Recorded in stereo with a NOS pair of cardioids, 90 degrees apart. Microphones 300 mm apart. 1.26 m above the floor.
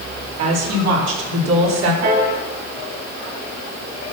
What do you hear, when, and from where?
0.4 s a woman speaking: 60° right, 3.5 m; by 1.9 s 65° right, 4 m
2.0 s a piano: 65° right, 5 m